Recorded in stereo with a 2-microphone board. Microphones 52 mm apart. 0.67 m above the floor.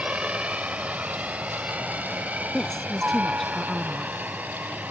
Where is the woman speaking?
5° left (ahead or behind).